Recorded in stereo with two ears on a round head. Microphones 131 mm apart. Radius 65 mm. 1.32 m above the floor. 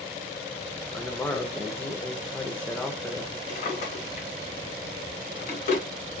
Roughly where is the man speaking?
Centre.